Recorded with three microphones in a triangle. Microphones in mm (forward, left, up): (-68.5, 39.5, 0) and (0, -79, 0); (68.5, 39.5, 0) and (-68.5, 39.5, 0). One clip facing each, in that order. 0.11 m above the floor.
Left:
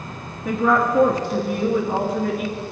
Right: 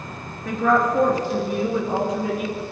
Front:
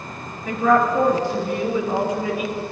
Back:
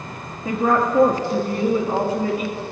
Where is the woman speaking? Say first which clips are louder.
Even, front 2 dB; 160° right, 2 m; by 2.6 s 150° right, 3 m.